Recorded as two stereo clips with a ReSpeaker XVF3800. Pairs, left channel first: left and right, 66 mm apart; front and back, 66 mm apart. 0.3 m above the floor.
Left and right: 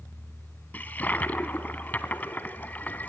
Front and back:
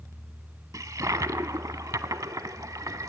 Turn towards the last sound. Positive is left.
turn(degrees=150)